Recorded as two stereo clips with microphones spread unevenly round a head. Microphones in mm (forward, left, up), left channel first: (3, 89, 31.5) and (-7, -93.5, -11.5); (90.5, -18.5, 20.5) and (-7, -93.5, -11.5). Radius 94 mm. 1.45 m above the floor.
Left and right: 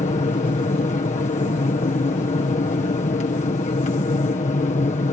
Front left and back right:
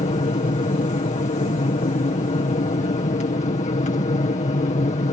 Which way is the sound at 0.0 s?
35° left.